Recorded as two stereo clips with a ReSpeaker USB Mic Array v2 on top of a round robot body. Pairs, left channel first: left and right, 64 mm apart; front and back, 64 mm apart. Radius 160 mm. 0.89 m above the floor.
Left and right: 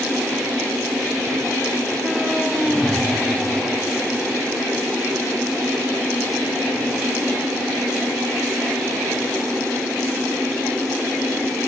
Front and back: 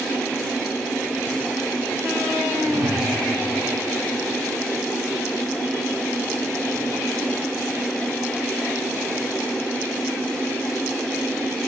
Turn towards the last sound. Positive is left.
turn(degrees=165)